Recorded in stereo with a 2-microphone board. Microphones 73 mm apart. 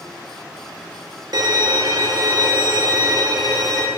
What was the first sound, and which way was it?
A violin, 60° right (ahead or behind).